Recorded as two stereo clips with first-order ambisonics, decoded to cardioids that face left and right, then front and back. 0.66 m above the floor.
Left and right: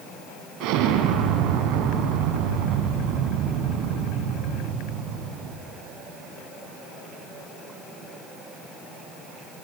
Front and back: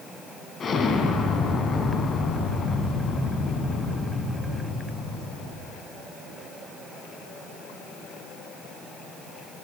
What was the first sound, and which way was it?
An explosion, 65° right.